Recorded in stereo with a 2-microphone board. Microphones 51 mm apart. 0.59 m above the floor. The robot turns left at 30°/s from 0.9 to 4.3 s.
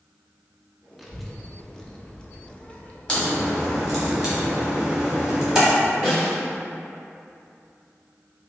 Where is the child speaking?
Centre (ahead or behind), 0.5 m; by 4.1 s 30° left (ahead or behind), 0.5 m.